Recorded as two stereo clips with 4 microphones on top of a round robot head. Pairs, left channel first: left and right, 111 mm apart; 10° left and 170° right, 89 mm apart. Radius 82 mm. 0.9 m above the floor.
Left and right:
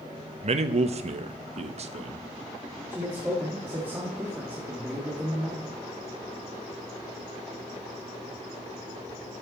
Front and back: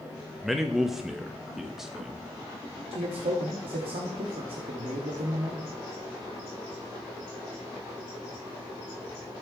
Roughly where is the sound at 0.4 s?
Right.